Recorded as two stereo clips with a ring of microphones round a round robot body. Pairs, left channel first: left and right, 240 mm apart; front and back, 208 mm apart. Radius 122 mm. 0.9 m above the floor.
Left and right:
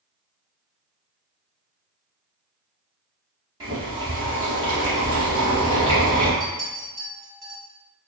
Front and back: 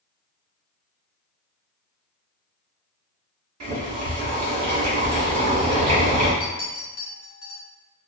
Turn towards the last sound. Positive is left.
turn(degrees=-15)